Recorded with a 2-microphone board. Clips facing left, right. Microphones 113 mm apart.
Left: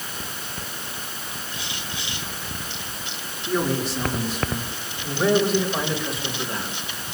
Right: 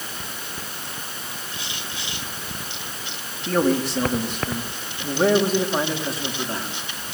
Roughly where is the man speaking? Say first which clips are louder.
Right 4 dB; right.